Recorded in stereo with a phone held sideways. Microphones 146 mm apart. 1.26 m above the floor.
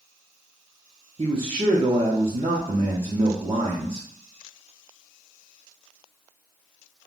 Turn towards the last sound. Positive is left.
turn(degrees=-40)  # may be behind; listen again after turning